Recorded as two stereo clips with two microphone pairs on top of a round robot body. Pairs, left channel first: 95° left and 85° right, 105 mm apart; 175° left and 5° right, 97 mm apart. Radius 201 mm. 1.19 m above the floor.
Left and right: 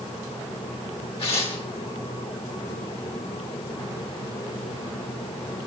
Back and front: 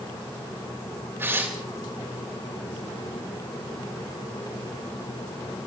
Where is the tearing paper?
55° left, 1.9 m.